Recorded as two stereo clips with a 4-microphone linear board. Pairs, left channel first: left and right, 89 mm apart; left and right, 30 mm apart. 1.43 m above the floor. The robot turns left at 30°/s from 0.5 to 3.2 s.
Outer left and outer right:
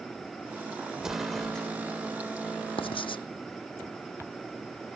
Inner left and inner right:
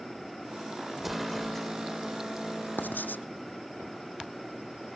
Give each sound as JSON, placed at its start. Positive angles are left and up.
{"t": 1.0, "sound": "an explosion", "side_deg": -10}
{"t": 2.8, "sound": "writing", "side_deg": 80}